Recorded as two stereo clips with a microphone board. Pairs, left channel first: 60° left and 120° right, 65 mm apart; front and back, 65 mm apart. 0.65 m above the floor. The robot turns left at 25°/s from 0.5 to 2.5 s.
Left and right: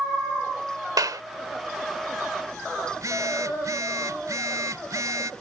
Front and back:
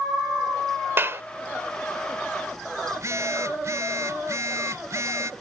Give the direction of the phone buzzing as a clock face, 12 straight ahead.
5 o'clock.